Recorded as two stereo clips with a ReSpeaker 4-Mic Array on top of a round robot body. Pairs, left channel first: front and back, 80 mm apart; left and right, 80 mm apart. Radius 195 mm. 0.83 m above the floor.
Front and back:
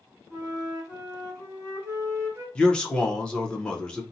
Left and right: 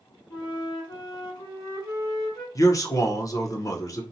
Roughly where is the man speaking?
Left.